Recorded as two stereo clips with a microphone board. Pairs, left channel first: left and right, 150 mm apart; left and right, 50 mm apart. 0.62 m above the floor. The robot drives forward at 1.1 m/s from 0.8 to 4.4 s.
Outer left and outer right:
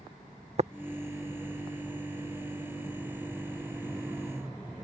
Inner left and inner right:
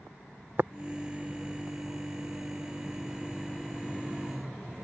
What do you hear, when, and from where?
0.6 s tapping: 45° right (ahead or behind)